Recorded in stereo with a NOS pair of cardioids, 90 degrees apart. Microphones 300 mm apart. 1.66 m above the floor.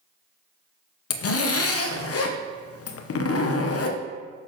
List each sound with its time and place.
1.1 s a zipper: 50° left, 0.9 m